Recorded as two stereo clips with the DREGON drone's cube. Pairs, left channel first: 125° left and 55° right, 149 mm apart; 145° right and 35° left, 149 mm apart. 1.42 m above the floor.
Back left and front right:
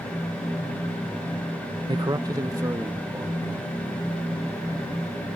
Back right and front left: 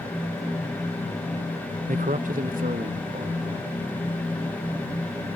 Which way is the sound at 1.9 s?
5° left.